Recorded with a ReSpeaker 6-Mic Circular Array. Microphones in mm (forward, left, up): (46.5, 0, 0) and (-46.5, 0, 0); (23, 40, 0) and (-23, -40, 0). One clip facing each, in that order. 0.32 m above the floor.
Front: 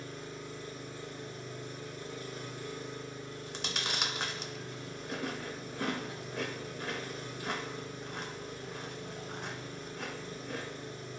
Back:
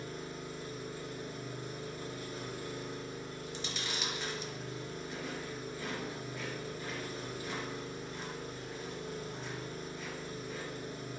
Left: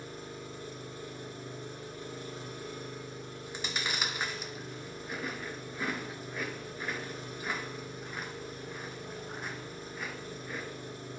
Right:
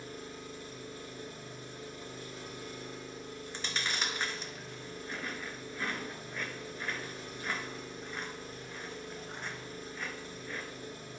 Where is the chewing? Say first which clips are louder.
Front 4 dB, left 2 dB; 20° right, 0.7 m.